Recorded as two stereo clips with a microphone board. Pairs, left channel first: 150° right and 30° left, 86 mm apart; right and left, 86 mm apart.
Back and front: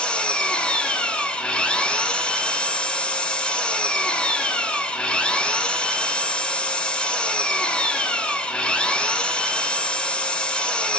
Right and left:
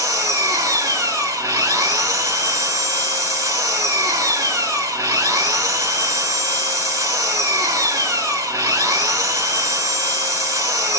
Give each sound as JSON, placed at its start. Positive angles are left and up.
{"t": 0.0, "sound": "an engine running", "azimuth_deg": 130, "distance_m": 1.1}